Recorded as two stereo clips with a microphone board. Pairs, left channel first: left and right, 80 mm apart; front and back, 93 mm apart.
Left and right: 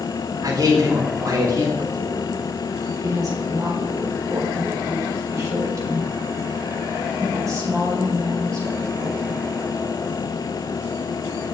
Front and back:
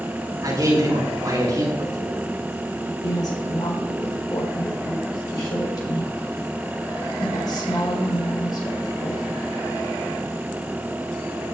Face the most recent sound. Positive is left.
turn(degrees=-45)